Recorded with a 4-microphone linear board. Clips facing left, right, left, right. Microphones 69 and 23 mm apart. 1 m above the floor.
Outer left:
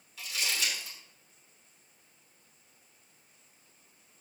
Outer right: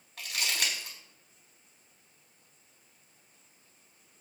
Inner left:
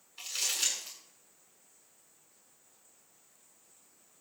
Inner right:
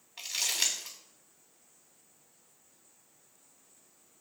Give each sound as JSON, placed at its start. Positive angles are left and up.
{"t": 0.2, "sound": "crumpling", "side_deg": -65, "distance_m": 4.5}